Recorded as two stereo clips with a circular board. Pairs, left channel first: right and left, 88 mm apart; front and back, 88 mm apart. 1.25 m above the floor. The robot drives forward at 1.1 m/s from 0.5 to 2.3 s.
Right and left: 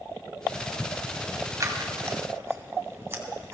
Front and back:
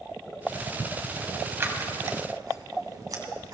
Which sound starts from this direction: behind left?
Scissors, at 1.6 s.